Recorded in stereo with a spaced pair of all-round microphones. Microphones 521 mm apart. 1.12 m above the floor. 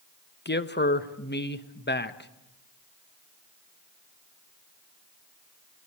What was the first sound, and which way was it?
A man speaking, 20° left (ahead or behind).